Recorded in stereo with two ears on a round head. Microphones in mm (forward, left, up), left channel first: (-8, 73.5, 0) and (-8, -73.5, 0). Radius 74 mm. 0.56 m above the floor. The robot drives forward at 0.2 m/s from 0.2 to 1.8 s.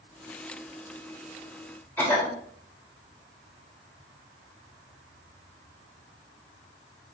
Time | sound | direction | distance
2.0 | a cough | 10° left (ahead or behind) | 1.3 m